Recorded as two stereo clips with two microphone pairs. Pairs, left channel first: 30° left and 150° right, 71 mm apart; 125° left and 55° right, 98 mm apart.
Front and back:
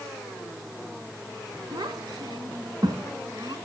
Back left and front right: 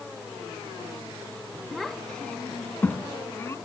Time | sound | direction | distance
1.7 | a child speaking | 140° right | 1.9 m